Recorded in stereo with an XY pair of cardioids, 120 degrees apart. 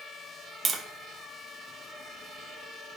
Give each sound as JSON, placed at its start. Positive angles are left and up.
{"t": 0.7, "sound": "tapping", "azimuth_deg": -30, "distance_m": 0.8}